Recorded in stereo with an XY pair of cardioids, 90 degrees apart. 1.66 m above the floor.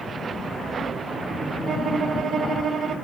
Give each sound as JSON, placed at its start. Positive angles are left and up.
{"t": 1.7, "sound": "a violin", "azimuth_deg": -60, "distance_m": 3.0}